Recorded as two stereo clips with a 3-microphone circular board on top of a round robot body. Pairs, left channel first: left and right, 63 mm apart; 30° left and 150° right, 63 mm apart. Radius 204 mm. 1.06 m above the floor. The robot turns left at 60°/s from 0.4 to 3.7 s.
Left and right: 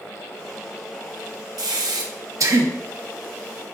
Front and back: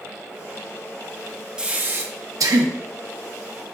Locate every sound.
1.6 s breathing: 75° right, 0.5 m; by 2.7 s 145° right, 0.5 m